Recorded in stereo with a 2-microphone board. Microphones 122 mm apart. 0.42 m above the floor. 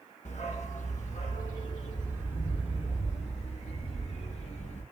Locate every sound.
0.2 s a dog barking: 75° left (ahead or behind), 1.0 m; by 4.8 s 80° left, 3.5 m